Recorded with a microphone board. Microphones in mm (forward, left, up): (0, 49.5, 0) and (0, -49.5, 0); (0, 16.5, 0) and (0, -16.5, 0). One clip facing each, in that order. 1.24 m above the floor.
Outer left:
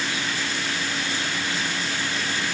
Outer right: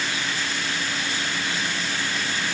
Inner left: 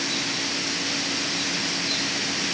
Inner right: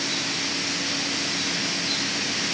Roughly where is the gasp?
I don't hear a gasp.